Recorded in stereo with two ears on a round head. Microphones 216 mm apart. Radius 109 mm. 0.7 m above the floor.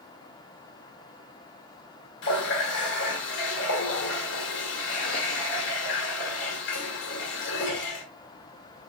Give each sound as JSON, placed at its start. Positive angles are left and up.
{"t": 2.2, "sound": "a running tap", "side_deg": 55, "distance_m": 1.6}